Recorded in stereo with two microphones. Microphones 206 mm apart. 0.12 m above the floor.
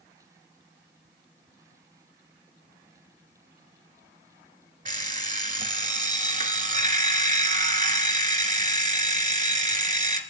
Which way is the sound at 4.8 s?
40° right (ahead or behind).